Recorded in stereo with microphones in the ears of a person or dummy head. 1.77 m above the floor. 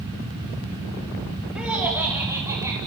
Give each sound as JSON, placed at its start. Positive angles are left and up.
{"t": 1.6, "sound": "laughter", "side_deg": -5, "distance_m": 4.0}